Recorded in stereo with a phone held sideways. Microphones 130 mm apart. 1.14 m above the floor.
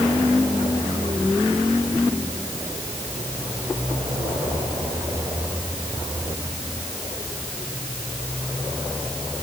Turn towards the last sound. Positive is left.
No sound to turn to.